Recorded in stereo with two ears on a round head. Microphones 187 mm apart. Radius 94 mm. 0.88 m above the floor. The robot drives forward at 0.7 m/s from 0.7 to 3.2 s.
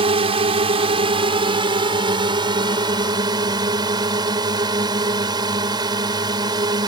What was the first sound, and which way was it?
A drone, 30° right (ahead or behind).